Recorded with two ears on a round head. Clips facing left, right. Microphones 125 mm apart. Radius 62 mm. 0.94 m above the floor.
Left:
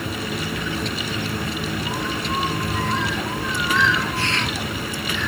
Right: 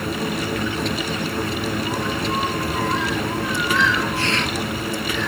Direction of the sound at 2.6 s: 5° right (ahead or behind).